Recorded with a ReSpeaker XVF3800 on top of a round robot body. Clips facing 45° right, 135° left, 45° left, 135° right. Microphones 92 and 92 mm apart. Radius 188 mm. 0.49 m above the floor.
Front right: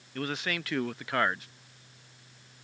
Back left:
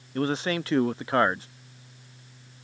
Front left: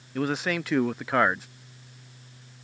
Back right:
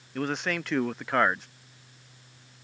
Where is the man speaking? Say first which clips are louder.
Back left 7 dB, front left 3 dB; 130° left.